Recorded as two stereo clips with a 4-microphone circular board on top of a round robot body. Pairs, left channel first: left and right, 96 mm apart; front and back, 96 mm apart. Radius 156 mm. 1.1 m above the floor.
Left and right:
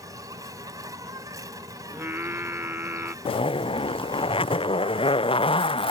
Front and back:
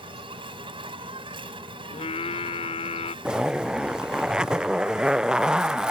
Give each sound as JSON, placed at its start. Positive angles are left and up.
{"t": 0.0, "sound": "an insect", "azimuth_deg": -145}
{"t": 1.9, "sound": "singing", "azimuth_deg": -20}
{"t": 3.2, "sound": "a zipper", "azimuth_deg": 100}